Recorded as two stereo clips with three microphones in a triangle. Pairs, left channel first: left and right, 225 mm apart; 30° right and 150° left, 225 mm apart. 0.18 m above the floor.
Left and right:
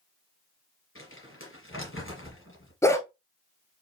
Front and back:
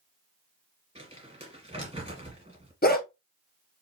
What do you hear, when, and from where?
0.9 s crumpling: 90° left, 3.5 m
2.8 s a dog barking: 10° left, 1.0 m